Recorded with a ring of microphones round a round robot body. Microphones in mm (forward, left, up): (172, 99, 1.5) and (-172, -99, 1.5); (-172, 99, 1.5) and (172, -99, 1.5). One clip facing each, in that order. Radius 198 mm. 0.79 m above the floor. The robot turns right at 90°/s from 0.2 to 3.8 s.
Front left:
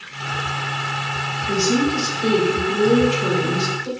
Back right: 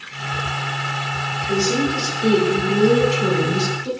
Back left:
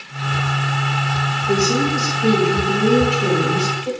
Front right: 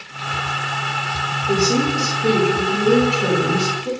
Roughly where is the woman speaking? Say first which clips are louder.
Front left 1 dB, even; ahead left.